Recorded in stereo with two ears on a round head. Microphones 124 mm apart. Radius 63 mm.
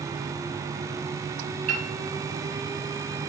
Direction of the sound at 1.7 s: 60° right (ahead or behind).